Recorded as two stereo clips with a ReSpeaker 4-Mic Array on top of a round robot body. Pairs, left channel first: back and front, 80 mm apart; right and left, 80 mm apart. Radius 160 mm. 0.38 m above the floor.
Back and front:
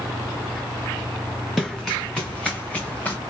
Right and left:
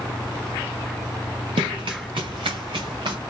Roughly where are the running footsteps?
Left.